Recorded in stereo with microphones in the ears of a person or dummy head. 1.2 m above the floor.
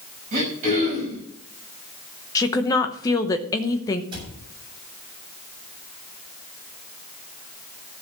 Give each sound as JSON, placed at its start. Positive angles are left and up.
{"t": 0.3, "sound": "throat clearing", "side_deg": -40, "distance_m": 4.5}
{"t": 2.4, "sound": "a woman speaking", "side_deg": 15, "distance_m": 1.0}
{"t": 4.1, "sound": "a cupboard door", "side_deg": -25, "distance_m": 5.5}